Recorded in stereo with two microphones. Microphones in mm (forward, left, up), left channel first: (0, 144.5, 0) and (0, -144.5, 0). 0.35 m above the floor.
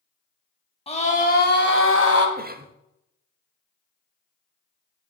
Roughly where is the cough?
Right.